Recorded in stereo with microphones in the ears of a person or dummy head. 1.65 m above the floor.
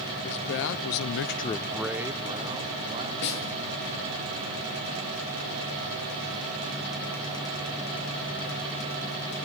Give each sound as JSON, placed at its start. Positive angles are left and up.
{"t": 0.2, "sound": "a man speaking", "side_deg": 55, "distance_m": 1.5}
{"t": 3.2, "sound": "a snare drum", "side_deg": 60, "distance_m": 10.0}